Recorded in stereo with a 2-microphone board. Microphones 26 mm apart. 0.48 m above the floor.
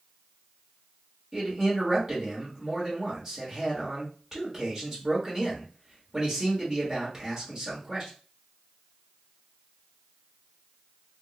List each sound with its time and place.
1.3 s a man speaking: 15° right (ahead or behind), 1.4 m